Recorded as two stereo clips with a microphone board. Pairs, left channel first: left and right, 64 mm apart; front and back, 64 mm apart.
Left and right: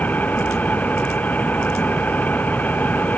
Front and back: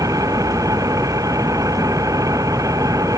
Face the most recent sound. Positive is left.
turn(degrees=155)